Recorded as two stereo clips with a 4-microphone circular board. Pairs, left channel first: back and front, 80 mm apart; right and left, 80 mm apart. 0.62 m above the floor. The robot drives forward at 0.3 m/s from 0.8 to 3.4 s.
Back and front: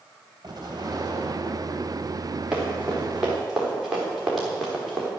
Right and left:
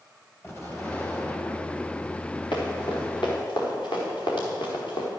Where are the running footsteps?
85° right, 5.5 m; by 5.1 s 90° right, 4 m.